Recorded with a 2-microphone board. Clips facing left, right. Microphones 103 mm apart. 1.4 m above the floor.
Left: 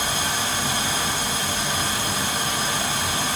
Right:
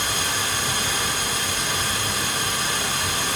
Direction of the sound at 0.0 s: 30° left (ahead or behind).